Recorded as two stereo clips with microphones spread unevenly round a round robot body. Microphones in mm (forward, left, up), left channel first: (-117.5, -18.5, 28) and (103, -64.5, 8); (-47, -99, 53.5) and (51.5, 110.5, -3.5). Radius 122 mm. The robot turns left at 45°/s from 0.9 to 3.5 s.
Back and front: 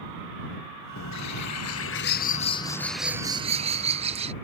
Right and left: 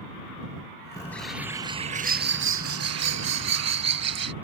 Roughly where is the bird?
Behind.